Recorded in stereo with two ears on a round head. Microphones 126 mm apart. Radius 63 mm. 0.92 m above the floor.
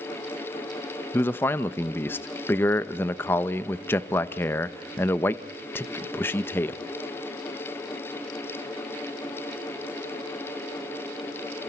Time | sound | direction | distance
1.1 | a man speaking | 15° left (ahead or behind) | 0.8 m